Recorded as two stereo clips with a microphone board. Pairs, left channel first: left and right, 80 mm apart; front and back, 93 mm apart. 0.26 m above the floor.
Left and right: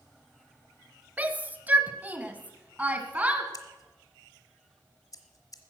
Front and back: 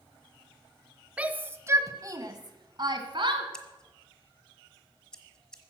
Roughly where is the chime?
I don't hear a chime.